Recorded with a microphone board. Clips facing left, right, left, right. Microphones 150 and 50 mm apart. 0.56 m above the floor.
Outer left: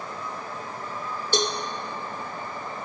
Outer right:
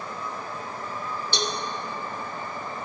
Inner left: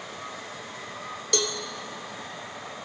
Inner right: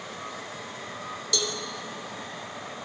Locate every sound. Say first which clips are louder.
1.3 s a cowbell: outer left 5 dB, inner left 3 dB; 45° left (ahead or behind), 0.5 m